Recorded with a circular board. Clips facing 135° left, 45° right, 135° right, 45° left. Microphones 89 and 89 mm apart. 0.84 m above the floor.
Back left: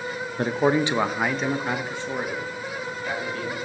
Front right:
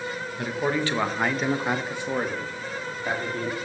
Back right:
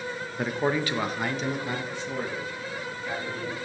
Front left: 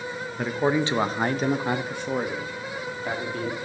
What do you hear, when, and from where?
0.4 s a man speaking: 140° left, 0.6 m; by 3.6 s 15° left, 1.8 m